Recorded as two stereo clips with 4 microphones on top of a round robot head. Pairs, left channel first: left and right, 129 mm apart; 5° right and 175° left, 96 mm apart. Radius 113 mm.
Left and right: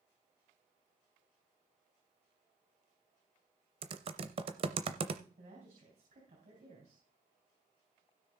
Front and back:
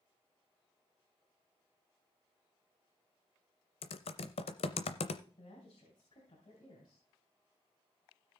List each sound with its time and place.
3.8 s typing on a keyboard: 35° right, 0.6 m
5.4 s a woman speaking: 55° right, 3.5 m